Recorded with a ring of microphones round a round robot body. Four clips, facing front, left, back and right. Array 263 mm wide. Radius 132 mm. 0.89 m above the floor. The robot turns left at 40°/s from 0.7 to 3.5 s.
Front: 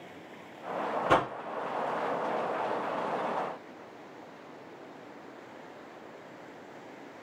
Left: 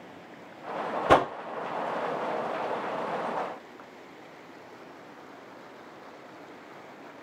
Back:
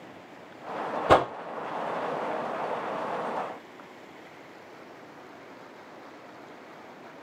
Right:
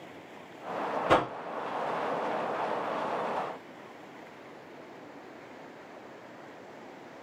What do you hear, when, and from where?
1.1 s a whoosh: 140° left, 0.8 m; by 1.3 s 130° left, 0.8 m